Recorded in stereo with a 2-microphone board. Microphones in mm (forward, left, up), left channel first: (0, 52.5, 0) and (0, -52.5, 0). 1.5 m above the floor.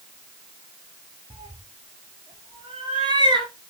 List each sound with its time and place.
1.3 s a cat meowing: 65° right (ahead or behind), 3 m; by 3.5 s 40° right (ahead or behind), 1.9 m